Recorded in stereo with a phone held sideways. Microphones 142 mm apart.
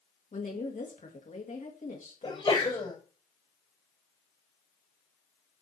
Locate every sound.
0.3 s a woman speaking: 55° left (ahead or behind), 2 m
2.2 s a sneeze: 35° left (ahead or behind), 5.5 m